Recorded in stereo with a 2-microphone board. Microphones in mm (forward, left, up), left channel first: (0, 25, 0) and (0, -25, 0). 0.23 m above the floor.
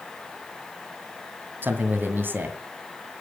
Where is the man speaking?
45° right (ahead or behind), 2.5 m.